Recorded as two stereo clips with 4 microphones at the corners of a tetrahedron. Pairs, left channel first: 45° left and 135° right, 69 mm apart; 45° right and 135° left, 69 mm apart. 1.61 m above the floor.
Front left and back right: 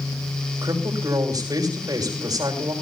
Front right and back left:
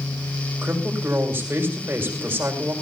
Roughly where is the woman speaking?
Behind.